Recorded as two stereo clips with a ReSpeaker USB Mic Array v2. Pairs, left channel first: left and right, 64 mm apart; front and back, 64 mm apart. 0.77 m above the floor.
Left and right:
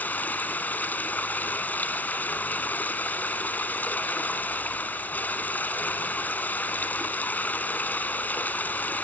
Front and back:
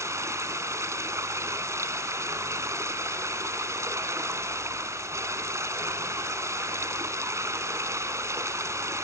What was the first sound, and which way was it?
Running water, 150° left.